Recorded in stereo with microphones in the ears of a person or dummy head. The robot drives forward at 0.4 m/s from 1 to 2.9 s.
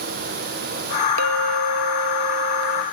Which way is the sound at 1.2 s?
75° right (ahead or behind).